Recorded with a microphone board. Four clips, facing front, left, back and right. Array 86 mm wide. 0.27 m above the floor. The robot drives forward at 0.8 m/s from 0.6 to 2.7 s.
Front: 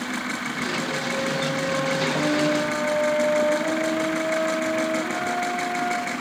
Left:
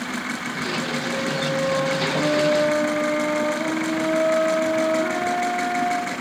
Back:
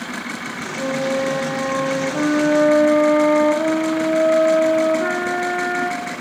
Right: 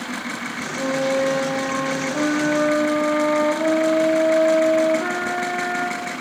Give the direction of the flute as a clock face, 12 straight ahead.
4 o'clock.